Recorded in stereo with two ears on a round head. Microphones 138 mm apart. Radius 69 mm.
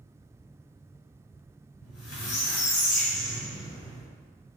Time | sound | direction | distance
1.8 | a squeak | 85° left | 1.9 m